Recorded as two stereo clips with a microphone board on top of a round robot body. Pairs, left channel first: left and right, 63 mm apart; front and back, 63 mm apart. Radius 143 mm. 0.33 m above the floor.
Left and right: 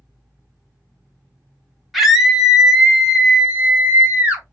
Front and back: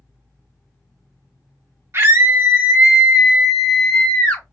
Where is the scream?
Straight behind, 1.3 m; by 4.4 s 50° right, 1.2 m.